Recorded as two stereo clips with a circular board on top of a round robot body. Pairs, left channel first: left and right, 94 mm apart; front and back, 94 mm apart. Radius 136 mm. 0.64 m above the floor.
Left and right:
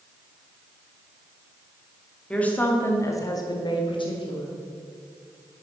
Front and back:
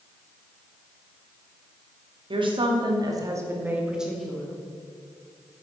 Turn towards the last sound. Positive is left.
turn(degrees=80)